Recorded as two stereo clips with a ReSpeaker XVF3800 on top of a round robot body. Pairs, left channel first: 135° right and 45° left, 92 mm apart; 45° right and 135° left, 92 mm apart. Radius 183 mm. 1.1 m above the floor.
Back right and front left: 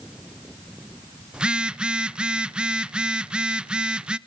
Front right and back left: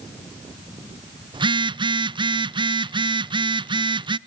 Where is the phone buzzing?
125° left, 0.6 m.